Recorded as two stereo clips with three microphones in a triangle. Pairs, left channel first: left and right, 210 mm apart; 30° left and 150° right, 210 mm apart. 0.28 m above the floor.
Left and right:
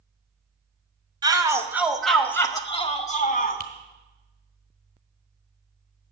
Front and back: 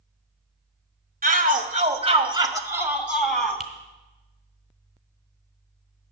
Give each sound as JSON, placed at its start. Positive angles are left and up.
{"t": 1.2, "sound": "a shout", "azimuth_deg": -150, "distance_m": 1.3}
{"t": 3.6, "sound": "a finger snap", "azimuth_deg": -60, "distance_m": 1.5}